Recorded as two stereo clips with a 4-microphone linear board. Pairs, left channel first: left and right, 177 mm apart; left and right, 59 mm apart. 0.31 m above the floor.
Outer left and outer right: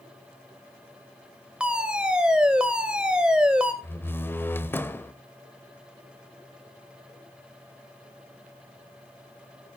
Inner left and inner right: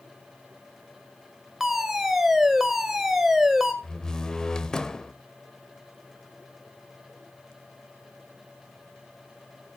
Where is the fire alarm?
5° right (ahead or behind), 1.8 m.